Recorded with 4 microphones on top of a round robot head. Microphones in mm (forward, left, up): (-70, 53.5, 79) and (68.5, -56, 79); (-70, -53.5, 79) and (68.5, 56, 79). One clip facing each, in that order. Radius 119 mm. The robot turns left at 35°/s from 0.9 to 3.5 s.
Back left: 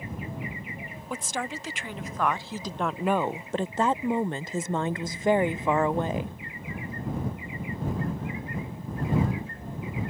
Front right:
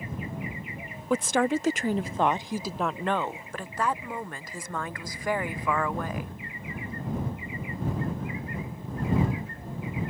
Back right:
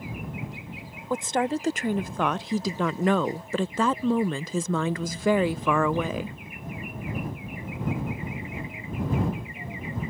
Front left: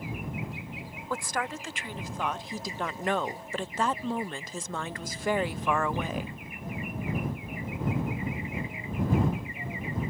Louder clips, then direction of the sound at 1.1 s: Front right 10 dB, back right 8 dB; 65° right.